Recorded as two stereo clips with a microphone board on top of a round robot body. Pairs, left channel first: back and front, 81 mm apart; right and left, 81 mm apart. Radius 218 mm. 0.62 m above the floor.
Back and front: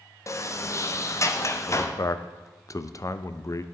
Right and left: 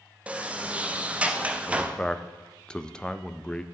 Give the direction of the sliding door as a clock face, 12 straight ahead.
7 o'clock.